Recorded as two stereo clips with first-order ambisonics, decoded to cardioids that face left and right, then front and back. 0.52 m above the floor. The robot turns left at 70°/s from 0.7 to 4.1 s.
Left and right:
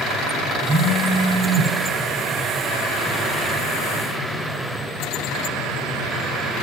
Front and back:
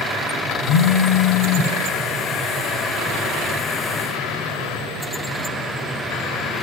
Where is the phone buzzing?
5° left, 0.6 m; by 1.7 s 70° right, 0.6 m.